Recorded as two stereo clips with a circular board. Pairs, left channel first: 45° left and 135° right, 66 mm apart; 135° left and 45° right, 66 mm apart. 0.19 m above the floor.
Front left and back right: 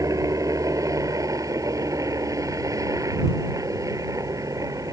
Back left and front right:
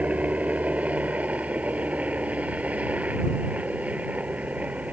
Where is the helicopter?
110° right.